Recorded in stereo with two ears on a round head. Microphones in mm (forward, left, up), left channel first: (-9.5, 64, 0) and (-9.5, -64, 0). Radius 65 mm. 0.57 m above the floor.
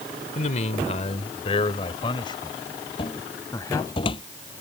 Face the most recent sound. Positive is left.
turn(degrees=35)  # may be behind; listen again after turning